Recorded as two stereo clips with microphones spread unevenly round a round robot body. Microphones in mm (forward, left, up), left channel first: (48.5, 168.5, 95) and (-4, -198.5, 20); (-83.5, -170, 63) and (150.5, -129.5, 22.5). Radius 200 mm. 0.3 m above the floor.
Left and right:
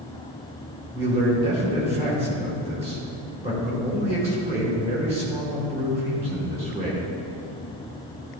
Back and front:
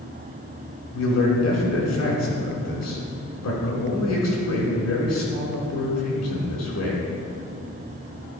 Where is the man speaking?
170° right, 4 m.